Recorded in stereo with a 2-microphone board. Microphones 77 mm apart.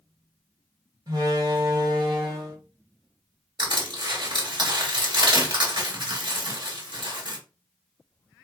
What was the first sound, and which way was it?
A door slam, 55° right (ahead or behind).